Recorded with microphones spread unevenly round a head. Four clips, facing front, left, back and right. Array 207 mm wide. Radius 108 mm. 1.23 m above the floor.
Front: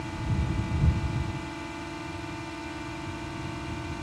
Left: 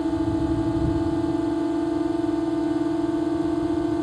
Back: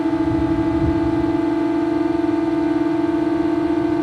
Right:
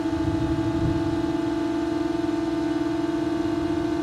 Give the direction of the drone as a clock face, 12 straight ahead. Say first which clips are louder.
Left 1 dB, back 17 dB; 6 o'clock.